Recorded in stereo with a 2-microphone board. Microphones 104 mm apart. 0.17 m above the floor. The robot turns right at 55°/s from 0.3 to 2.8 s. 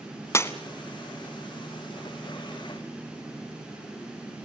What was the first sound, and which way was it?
Breaking glass, 25° left (ahead or behind).